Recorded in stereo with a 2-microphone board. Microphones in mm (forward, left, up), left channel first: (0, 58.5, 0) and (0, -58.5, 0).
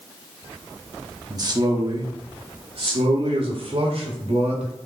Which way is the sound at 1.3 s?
35° right (ahead or behind).